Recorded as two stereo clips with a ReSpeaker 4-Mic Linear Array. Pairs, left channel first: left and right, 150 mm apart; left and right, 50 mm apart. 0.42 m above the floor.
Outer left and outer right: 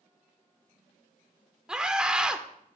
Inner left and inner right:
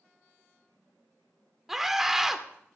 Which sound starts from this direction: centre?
A scream, at 1.7 s.